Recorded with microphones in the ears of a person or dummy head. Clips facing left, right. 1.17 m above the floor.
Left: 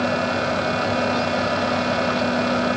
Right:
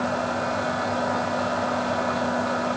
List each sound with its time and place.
Only background noise.